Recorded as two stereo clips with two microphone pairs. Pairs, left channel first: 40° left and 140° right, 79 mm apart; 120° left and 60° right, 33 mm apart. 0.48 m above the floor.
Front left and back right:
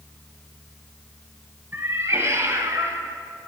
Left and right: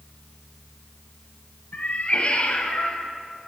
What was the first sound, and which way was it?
A cat meowing, 160° left.